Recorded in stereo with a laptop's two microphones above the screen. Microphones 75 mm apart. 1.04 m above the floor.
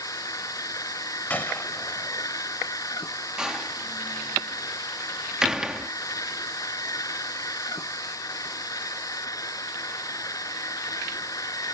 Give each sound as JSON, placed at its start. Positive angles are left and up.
{"t": 0.0, "sound": "a machine running", "side_deg": 50}
{"t": 1.3, "sound": "a gunshot", "side_deg": 25}
{"t": 3.4, "sound": "a door slam", "side_deg": -10}